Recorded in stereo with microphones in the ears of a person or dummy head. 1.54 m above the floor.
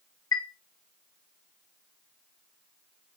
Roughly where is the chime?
Centre.